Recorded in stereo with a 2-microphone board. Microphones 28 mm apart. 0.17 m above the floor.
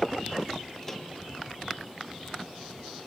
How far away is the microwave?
About 2.5 m.